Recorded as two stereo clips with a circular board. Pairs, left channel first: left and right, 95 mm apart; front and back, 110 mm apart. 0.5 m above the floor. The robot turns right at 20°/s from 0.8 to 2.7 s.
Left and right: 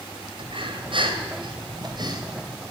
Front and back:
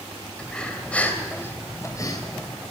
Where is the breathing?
80° right, 2.5 m; by 2.6 s 45° right, 2.5 m.